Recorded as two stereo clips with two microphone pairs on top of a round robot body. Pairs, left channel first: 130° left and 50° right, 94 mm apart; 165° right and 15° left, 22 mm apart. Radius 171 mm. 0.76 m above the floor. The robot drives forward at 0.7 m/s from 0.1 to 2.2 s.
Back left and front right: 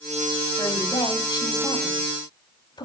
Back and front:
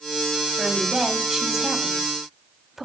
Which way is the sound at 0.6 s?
80° left.